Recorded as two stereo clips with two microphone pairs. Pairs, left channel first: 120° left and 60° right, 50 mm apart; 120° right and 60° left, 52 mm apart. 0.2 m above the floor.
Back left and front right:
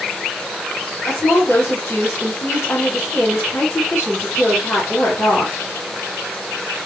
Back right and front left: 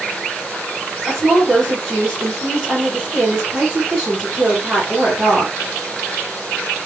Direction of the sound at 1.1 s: 125° left.